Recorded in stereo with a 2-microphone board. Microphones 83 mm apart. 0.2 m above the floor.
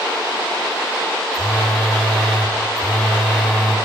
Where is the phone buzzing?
5° left (ahead or behind), 5 m.